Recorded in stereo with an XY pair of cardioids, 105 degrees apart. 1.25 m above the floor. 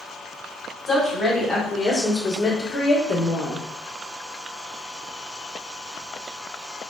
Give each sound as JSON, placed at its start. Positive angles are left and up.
{"t": 0.9, "sound": "a woman speaking", "azimuth_deg": 20, "distance_m": 1.7}